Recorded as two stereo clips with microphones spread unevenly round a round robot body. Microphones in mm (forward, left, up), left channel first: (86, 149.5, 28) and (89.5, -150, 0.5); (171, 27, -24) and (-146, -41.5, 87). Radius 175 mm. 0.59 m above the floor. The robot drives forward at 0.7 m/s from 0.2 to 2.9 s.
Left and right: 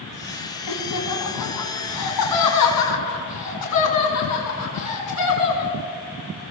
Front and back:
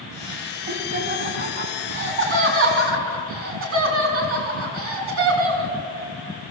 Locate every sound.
0.7 s laughter: 130° left, 5.5 m; by 5.7 s 140° left, 6.5 m